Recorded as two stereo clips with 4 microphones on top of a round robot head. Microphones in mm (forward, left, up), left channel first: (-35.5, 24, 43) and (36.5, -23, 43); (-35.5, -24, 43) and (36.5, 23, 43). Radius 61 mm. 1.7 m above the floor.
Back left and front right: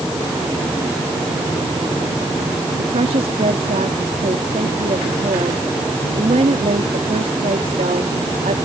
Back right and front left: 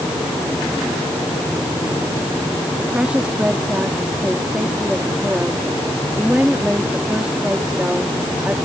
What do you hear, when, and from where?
2.8 s a woman speaking: 45° right